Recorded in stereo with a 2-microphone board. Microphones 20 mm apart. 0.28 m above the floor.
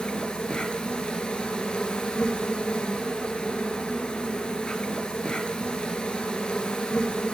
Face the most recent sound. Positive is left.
turn(degrees=75)  # may be behind; listen again after turning